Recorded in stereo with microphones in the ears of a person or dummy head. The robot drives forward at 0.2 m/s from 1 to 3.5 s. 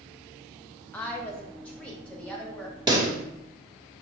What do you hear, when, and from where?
0.9 s a woman speaking: 5° left (ahead or behind), 0.6 m
2.9 s a pop: 20° right (ahead or behind), 0.5 m